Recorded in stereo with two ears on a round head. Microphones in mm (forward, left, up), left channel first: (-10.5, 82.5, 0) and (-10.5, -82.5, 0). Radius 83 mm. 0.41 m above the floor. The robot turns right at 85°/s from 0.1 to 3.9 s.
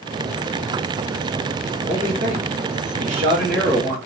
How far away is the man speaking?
About 3 m.